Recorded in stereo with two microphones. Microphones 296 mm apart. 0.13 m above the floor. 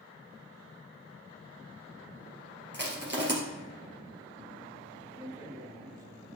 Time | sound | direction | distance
2.7 | crushing | 40° right (ahead or behind) | 2.5 m
5.1 | a man speaking | 10° right (ahead or behind) | 2 m